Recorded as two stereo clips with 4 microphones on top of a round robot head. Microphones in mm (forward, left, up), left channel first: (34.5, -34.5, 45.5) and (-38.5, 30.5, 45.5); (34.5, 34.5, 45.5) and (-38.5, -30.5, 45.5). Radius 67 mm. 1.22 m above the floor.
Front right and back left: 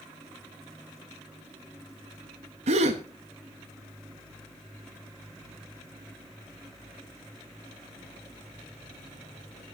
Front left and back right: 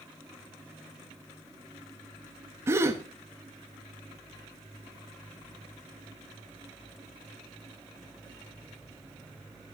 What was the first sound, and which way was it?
A gasp, 155° left.